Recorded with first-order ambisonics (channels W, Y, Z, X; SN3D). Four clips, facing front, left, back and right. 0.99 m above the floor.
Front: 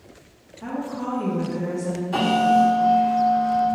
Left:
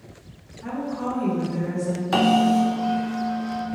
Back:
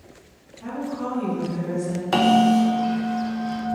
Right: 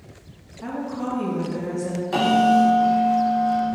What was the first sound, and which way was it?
A woman speaking, 65° right.